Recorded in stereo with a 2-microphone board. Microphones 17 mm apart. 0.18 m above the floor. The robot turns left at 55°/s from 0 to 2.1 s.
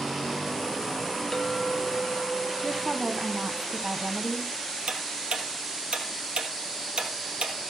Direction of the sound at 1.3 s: 70° left.